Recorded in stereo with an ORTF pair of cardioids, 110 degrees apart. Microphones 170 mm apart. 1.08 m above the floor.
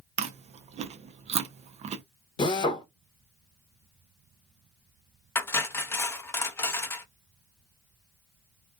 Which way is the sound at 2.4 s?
30° left.